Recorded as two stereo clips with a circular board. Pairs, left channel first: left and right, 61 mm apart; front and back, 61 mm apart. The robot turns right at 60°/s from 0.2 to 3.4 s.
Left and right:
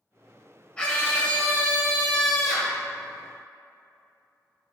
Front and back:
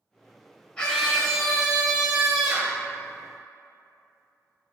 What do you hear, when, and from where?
0.8 s a scream: 50° left, 1.5 m; by 2.8 s 175° left, 1.5 m